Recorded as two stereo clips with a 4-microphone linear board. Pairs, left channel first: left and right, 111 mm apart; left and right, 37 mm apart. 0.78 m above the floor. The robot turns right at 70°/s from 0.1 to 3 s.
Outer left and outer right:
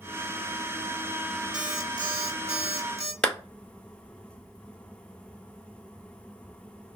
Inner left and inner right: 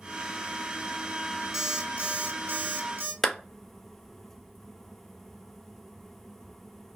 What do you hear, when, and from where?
1.5 s an alarm clock: 170° right, 1.0 m; by 3.1 s 70° right, 1.0 m
3.2 s a clap: 10° left (ahead or behind), 0.6 m